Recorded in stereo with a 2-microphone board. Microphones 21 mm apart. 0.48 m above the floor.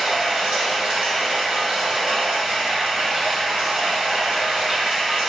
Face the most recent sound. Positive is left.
turn(degrees=-75)  # may be behind; listen again after turning